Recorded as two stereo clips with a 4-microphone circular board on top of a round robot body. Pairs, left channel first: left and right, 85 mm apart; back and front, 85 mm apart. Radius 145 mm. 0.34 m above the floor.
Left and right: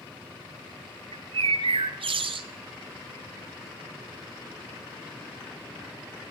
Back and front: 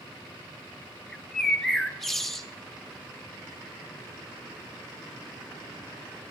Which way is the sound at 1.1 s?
90° right.